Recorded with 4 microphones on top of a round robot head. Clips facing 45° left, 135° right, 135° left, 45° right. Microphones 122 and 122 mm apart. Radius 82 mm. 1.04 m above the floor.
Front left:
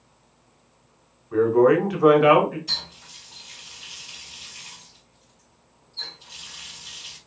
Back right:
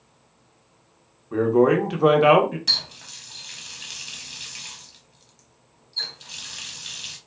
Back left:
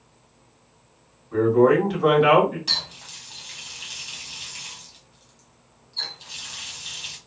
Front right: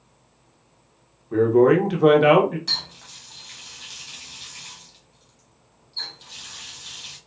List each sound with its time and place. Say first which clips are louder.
1.3 s a man speaking: front left 1 dB, front right 1 dB; 70° right, 0.9 m
2.7 s a running tap: back right 2 dB, back left 2 dB; 140° right, 0.8 m